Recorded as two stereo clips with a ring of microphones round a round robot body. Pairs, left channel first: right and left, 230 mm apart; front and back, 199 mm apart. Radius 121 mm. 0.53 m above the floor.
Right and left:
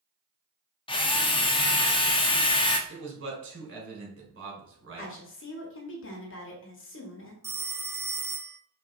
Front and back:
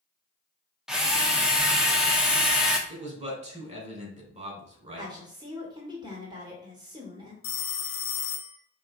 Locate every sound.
0.9 s a drill: 100° right, 0.7 m
2.9 s a man speaking: 125° left, 2.0 m
5.0 s a woman speaking: 110° right, 1.3 m
7.4 s a phone ringing: 10° left, 0.5 m